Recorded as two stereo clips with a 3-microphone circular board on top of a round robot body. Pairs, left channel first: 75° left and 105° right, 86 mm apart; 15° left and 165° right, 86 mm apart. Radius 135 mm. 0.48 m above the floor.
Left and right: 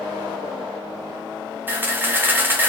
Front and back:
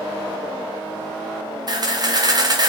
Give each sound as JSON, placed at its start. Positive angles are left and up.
{"t": 1.7, "sound": "a camera shutter", "azimuth_deg": -165, "distance_m": 1.0}